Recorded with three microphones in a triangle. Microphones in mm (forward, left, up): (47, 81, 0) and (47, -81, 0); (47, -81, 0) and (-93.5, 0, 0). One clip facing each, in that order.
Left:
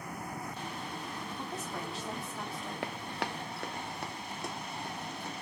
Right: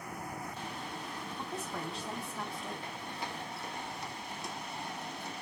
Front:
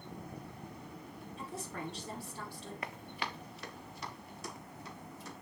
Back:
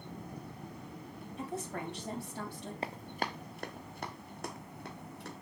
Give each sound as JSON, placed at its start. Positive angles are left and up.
{"t": 1.4, "sound": "a woman speaking", "azimuth_deg": 180, "distance_m": 5.0}
{"t": 2.8, "sound": "running footsteps", "azimuth_deg": 90, "distance_m": 0.9}